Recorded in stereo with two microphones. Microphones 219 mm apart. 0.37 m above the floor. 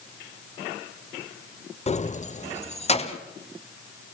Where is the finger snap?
No finger snap in this recording.